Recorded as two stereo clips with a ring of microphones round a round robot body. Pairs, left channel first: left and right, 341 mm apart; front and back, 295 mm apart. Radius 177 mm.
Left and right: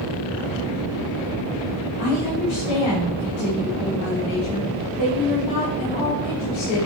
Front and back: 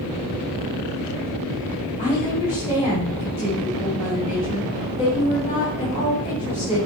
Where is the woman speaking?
70° left, 4 m.